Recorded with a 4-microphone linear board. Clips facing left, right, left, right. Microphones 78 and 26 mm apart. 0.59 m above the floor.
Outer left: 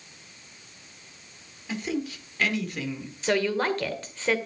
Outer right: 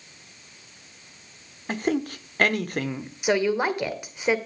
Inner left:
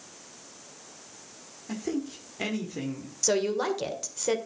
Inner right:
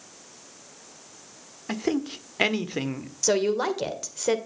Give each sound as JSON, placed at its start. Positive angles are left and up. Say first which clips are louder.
{"t": 1.7, "sound": "a man speaking", "louder": "outer right 5 dB, inner right 5 dB", "side_deg": -55, "distance_m": 1.5}
{"t": 3.2, "sound": "a woman speaking", "louder": "outer right 2 dB, inner right 3 dB", "side_deg": -15, "distance_m": 1.9}